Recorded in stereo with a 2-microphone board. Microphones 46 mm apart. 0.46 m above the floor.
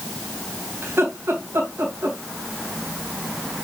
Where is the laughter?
70° right (ahead or behind), 3 m.